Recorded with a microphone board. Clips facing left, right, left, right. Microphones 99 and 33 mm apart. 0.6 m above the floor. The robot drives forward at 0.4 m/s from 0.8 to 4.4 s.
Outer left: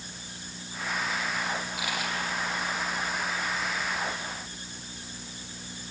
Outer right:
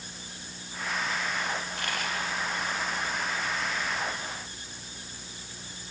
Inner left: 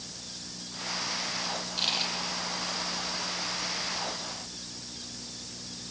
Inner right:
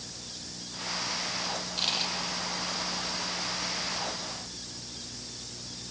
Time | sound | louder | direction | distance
1.6 | a dropped coin | outer left 1 dB, inner left 1 dB | 5° left (ahead or behind) | 2.5 m